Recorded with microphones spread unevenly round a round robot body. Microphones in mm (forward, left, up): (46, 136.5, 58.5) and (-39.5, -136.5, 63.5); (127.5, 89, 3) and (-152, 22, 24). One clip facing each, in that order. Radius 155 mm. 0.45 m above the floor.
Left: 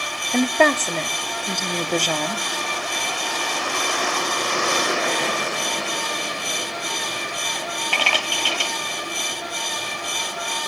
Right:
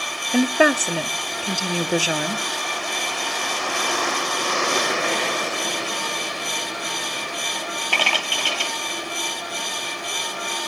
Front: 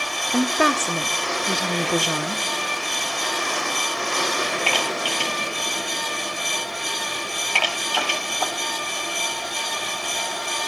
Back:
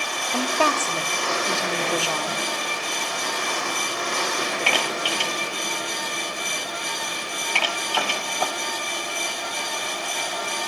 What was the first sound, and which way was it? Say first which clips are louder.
A woman speaking: right 1 dB, front 4 dB; 30° right.